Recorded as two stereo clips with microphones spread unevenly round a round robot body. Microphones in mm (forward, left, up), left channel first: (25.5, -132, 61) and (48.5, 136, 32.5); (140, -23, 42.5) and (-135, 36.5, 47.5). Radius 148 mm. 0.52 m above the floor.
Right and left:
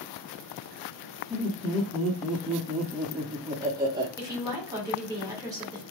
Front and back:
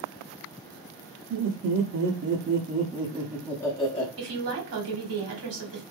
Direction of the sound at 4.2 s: 155° left.